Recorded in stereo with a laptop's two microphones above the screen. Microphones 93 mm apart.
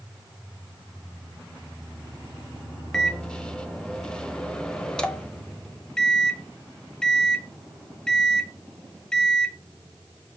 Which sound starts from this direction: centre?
A microwave, at 2.9 s.